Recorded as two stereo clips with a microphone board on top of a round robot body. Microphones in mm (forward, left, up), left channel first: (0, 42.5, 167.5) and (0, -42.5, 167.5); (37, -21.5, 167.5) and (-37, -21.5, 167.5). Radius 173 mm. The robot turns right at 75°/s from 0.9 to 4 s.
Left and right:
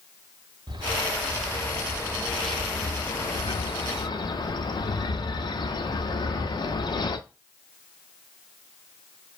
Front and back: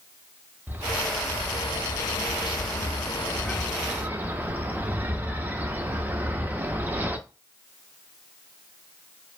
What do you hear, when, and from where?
0.7 s a bird: 115° right, 0.6 m; by 7.2 s 115° left, 0.6 m